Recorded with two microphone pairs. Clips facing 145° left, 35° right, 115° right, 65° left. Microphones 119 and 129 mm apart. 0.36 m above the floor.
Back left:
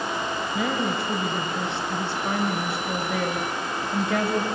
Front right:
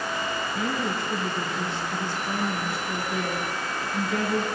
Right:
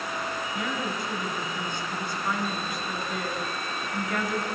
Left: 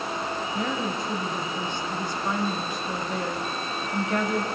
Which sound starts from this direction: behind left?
A woman speaking, at 0.5 s.